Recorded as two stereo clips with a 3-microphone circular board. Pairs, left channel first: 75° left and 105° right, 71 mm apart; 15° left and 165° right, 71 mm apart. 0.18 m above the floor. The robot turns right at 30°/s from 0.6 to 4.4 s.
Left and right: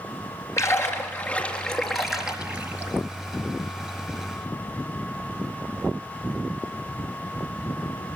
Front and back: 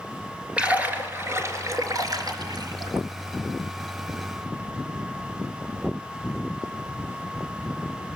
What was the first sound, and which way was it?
A splash, 120° left.